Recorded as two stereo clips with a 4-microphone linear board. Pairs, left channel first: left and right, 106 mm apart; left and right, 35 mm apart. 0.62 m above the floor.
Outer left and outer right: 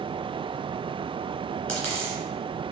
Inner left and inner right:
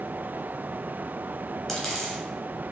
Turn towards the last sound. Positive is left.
turn(degrees=10)  # may be behind; listen again after turning